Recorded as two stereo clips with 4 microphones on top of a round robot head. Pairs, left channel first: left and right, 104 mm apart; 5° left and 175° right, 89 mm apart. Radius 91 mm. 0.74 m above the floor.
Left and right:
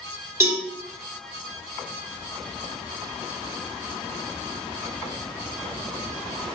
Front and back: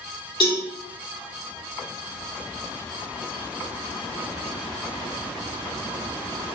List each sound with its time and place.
0.4 s a cowbell: 25° right, 1.7 m